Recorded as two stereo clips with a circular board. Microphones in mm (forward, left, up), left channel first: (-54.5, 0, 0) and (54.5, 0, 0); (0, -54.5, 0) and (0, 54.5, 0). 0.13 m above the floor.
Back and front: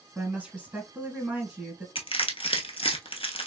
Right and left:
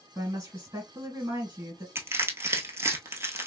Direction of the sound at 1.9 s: 155° left.